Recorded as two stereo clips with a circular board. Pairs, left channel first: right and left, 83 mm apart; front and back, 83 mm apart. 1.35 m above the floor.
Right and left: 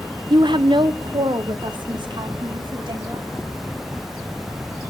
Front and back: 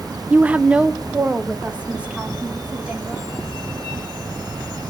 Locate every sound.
0.3 s a woman speaking: 110° left, 0.6 m; by 3.3 s 105° left, 4 m